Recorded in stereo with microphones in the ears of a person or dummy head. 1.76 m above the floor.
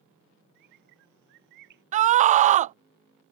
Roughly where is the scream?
Right.